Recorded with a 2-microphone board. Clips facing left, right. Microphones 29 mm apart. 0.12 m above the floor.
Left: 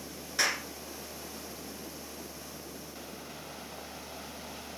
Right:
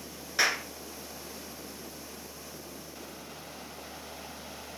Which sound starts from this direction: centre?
A clap, at 0.4 s.